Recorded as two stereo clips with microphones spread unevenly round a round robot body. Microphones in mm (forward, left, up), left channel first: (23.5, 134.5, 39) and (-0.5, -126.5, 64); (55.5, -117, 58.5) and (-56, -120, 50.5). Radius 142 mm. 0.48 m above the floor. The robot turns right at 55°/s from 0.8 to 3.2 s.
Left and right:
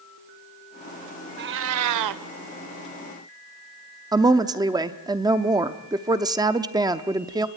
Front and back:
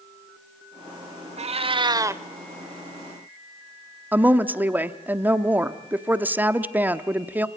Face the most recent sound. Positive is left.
turn(degrees=-160)